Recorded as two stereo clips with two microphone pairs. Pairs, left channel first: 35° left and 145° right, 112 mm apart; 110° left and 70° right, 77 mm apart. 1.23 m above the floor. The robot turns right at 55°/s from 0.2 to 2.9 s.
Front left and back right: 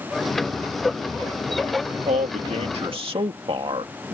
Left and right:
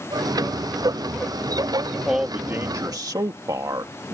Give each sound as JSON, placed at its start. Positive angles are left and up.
{"t": 2.1, "sound": "a man speaking", "azimuth_deg": -155}